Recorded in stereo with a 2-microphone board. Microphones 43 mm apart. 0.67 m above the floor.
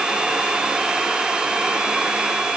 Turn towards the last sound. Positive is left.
No sound to turn to.